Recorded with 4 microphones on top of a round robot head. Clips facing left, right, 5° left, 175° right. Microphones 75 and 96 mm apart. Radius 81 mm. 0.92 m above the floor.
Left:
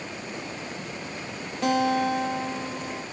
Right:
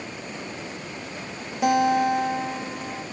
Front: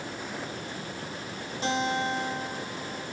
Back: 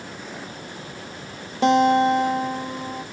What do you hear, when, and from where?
1.6 s a guitar: 165° right, 0.6 m